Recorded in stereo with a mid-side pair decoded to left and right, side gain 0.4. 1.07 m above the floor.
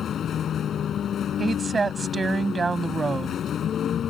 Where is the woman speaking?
35° right.